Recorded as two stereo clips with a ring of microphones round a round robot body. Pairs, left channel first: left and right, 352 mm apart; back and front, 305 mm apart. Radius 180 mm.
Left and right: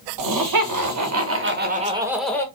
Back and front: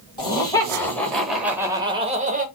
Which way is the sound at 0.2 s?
105° right.